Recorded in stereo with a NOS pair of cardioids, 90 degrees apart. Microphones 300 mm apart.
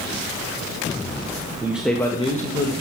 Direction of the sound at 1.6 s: 10° right.